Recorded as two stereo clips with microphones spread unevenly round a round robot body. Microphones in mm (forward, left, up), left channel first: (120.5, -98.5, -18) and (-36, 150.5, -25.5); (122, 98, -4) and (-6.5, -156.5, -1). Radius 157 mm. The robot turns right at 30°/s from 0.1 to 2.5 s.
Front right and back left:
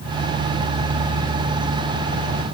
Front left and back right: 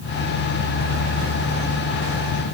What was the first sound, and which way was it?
Only background noise.